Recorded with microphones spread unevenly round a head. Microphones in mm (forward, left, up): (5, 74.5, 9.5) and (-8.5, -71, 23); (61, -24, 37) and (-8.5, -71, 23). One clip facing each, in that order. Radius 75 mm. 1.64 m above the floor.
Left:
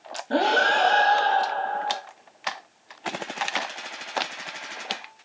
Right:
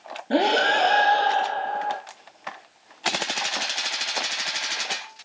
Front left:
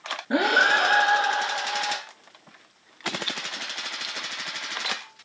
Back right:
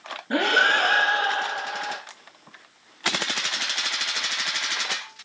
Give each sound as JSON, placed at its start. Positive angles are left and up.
{"t": 0.3, "sound": "breathing", "azimuth_deg": -35, "distance_m": 0.6}